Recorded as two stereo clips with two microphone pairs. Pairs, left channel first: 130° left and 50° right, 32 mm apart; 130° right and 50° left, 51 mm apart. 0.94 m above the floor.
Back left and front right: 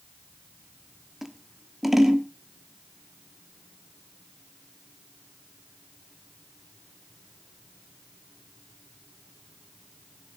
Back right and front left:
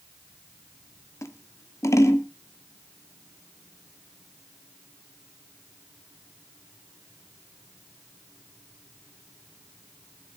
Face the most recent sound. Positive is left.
turn(degrees=-135)